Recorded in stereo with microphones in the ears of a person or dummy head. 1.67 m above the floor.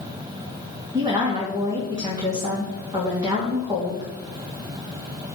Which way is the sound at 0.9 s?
20° right (ahead or behind).